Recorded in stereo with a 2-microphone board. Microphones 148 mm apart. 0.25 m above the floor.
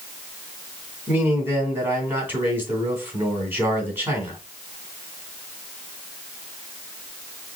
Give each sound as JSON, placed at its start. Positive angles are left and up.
{"t": 1.1, "sound": "a man speaking", "side_deg": -15, "distance_m": 2.5}